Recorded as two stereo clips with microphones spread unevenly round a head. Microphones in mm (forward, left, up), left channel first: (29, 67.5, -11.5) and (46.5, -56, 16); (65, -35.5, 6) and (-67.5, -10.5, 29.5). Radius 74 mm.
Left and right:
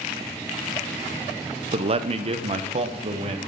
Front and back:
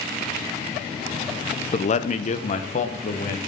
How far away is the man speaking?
About 0.8 m.